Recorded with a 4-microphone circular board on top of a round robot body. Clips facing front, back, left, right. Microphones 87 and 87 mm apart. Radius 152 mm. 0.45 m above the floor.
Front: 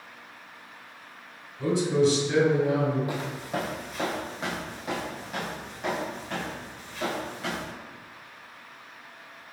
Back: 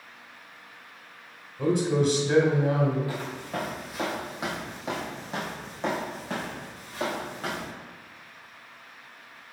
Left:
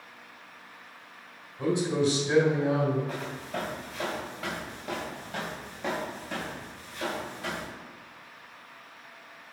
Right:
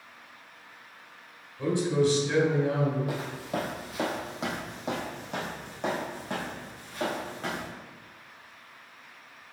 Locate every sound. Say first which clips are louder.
1.6 s a man speaking: front 1 dB, right 1 dB; 160° left, 2 m
3.1 s footsteps: front 2 dB, right 2 dB; 70° right, 1.0 m; by 7.7 s 135° right, 2.5 m